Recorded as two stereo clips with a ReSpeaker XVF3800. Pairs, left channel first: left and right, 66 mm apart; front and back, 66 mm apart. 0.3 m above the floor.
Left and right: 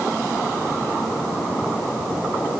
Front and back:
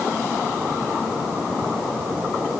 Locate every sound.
Only background noise.